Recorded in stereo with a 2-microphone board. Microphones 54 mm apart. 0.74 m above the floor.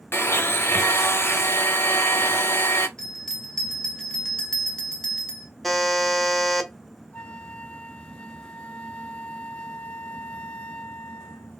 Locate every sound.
0.1 s a blender: 50° left (ahead or behind), 0.7 m
3.0 s a bell: 15° left (ahead or behind), 1.0 m
5.6 s a buzzer: centre (ahead or behind), 1.0 m
7.1 s a flute: 25° left (ahead or behind), 0.5 m